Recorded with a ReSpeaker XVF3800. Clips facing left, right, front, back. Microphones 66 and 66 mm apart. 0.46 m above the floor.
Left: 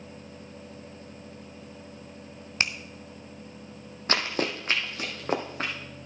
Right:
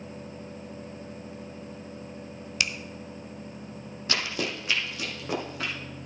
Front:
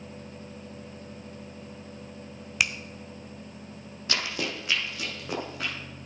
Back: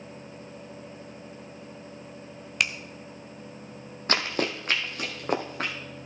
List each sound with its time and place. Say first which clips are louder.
2.6 s a finger snap: left 2 dB, even; 80° left, 0.6 m
4.1 s running footsteps: left 3 dB, back 4 dB; 135° left, 1.1 m